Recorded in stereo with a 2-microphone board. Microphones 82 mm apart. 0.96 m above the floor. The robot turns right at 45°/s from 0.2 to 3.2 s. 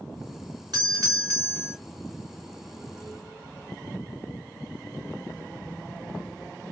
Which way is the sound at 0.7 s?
65° right.